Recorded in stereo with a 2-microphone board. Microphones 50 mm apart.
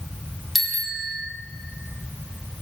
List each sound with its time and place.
0.6 s a bicycle bell: centre (ahead or behind), 2.5 m